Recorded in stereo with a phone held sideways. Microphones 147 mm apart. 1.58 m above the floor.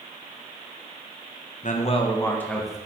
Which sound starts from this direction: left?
A man speaking, at 1.6 s.